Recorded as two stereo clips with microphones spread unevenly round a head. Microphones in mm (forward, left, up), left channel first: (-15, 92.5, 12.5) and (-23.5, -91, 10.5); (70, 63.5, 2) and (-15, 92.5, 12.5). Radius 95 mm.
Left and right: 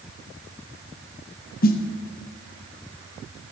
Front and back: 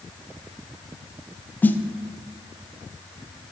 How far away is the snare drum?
About 0.8 m.